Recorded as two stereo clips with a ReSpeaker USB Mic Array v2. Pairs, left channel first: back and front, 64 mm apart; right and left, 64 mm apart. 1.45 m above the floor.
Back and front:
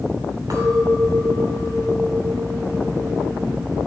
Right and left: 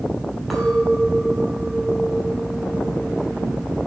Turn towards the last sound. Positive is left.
turn(degrees=-5)